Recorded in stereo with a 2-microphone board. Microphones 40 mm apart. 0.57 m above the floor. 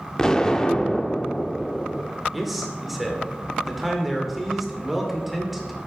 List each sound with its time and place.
0.2 s an explosion: 15° left (ahead or behind), 0.8 m
2.3 s a man speaking: 5° right (ahead or behind), 2 m